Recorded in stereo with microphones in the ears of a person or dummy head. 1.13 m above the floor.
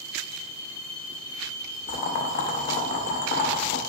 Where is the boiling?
45° left (ahead or behind), 0.5 m.